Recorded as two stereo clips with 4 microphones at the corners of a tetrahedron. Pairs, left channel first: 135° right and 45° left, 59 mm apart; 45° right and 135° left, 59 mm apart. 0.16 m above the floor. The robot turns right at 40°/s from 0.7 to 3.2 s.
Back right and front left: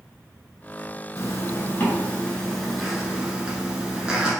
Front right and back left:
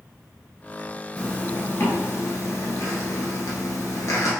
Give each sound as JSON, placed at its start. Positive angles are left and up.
{"t": 1.2, "sound": "a zipper", "azimuth_deg": -110, "distance_m": 1.2}